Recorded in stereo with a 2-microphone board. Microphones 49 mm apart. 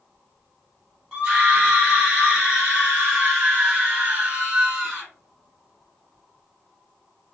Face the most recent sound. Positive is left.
turn(degrees=-15)  # may be behind; listen again after turning